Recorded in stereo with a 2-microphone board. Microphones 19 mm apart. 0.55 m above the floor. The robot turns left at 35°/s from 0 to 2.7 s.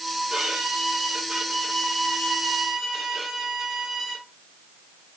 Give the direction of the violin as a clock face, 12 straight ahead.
3 o'clock.